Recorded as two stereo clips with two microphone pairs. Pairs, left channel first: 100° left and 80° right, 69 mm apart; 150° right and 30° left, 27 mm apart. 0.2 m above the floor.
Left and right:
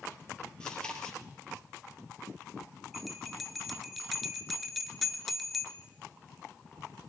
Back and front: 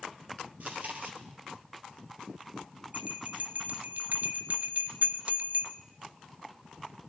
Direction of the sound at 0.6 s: 20° left.